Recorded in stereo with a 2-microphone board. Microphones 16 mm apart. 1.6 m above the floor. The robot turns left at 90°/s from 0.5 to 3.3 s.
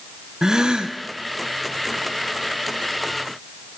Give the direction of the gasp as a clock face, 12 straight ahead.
1 o'clock.